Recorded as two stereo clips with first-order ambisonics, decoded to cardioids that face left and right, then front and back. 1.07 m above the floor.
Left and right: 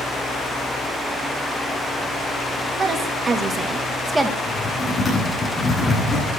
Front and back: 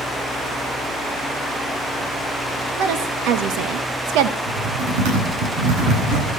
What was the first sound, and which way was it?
A woman speaking, 155° right.